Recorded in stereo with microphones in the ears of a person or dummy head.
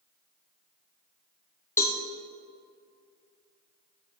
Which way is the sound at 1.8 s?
10° left (ahead or behind).